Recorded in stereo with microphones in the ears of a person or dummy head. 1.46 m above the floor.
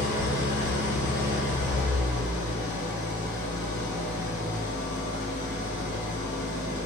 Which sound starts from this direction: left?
An engine running, at 0.0 s.